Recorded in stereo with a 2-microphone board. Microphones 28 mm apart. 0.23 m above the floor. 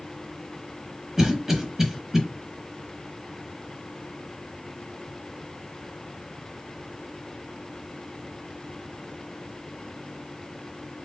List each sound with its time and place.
1.2 s a cough: 15° right (ahead or behind), 1.0 m